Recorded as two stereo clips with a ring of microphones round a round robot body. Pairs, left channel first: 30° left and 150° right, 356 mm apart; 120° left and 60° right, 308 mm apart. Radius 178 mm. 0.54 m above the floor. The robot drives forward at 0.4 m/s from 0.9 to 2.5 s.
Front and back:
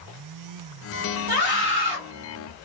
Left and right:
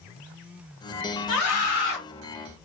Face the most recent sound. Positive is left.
turn(degrees=150)